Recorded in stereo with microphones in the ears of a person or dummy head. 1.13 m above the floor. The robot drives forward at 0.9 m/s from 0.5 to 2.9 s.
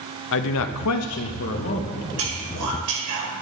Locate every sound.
0.3 s a man speaking: 70° left (ahead or behind), 0.8 m; by 2.1 s 35° left (ahead or behind), 1.4 m
2.2 s whispering: 70° right (ahead or behind), 5 m; by 3.3 s 80° right, 5 m